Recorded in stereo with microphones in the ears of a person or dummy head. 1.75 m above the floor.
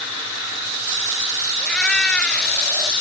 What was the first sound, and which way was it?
A cat meowing, centre (ahead or behind).